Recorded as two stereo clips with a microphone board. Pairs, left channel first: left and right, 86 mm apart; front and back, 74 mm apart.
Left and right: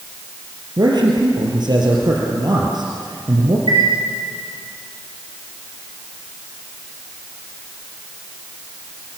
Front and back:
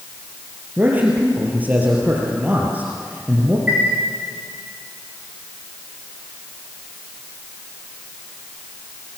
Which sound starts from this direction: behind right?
A man speaking, at 0.8 s.